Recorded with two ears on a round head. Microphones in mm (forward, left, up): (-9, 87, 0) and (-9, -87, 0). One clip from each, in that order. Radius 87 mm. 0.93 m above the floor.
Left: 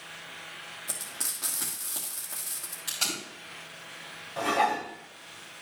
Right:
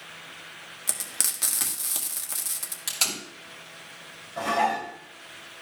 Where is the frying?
60° right (ahead or behind), 1.5 m.